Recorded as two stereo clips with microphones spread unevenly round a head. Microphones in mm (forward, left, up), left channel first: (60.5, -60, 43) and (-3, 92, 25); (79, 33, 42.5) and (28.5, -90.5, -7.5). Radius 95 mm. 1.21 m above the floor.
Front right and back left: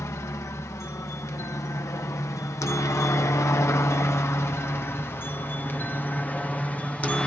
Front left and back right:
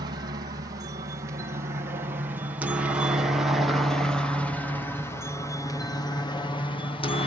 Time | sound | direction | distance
0.0 | a helicopter | 140° right | ?